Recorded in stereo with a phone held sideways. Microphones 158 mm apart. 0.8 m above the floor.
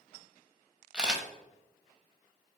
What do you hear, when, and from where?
0.9 s a camera shutter: 5° right (ahead or behind), 1.4 m